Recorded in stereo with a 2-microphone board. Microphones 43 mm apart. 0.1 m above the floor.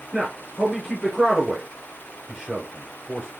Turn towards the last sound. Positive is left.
turn(degrees=-10)  # may be behind; listen again after turning